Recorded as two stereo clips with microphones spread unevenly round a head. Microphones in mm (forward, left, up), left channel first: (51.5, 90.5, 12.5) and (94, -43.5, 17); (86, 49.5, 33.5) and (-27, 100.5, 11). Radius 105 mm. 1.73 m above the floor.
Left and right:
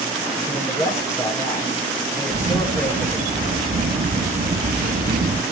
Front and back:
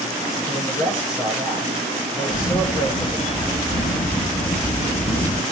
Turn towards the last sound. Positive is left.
turn(degrees=-60)